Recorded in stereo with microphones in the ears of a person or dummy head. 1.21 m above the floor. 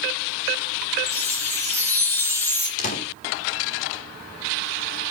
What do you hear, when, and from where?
1.1 s a chime: 15° left (ahead or behind), 1.1 m
2.8 s a door slam: 45° left (ahead or behind), 2.5 m